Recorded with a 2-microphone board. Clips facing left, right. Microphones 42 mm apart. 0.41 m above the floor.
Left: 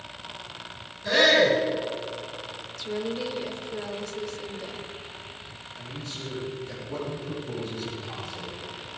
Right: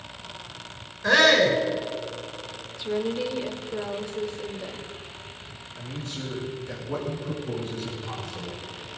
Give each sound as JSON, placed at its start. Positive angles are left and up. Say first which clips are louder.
{"t": 1.0, "sound": "a shout", "louder": "right 1 dB", "side_deg": -75, "distance_m": 4.5}
{"t": 2.8, "sound": "a woman speaking", "louder": "right 3 dB", "side_deg": -20, "distance_m": 1.2}
{"t": 5.8, "sound": "a man speaking", "louder": "right 3 dB", "side_deg": -45, "distance_m": 6.0}